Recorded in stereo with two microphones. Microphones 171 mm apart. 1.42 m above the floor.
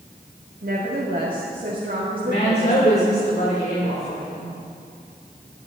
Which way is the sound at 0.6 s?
60° right (ahead or behind).